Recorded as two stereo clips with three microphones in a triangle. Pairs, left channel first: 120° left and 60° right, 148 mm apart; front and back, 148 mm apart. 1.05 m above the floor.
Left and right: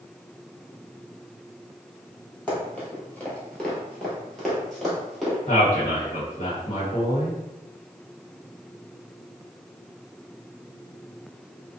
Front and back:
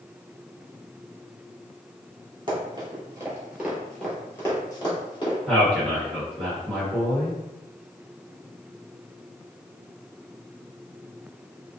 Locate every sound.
2.5 s running footsteps: 170° right, 1.2 m; by 5.4 s 30° left, 1.3 m
5.5 s a man speaking: 85° left, 1.0 m